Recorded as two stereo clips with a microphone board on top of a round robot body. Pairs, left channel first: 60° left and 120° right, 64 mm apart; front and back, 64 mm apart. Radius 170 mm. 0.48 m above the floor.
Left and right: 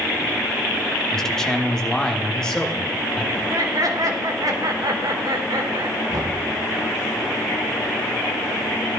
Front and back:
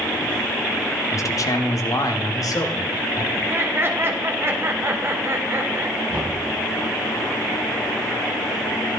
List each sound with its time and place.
1.1 s a man speaking: 20° right, 1.3 m
3.3 s laughter: 130° right, 2.5 m
6.1 s knocking: 115° right, 3.5 m